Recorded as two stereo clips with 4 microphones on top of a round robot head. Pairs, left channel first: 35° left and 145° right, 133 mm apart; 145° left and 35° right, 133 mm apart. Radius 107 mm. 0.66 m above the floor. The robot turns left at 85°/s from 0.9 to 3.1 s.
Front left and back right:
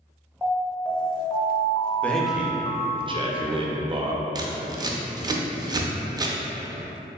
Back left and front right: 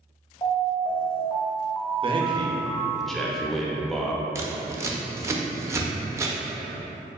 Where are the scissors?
95° right, 0.6 m.